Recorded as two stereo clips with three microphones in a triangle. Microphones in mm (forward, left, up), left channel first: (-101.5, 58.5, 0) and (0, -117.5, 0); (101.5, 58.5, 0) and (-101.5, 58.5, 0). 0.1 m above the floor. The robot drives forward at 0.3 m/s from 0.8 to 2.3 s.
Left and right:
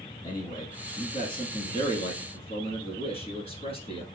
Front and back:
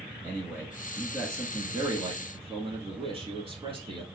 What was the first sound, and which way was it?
A man speaking, 110° left.